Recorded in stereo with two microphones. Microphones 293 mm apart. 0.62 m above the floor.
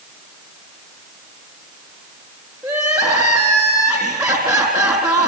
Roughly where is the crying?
Centre.